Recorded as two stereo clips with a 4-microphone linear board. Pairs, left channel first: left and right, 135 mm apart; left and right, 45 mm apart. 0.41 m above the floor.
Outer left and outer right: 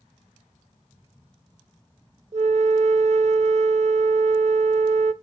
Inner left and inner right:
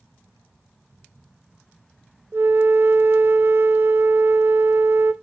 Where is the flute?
55° right (ahead or behind), 0.6 m.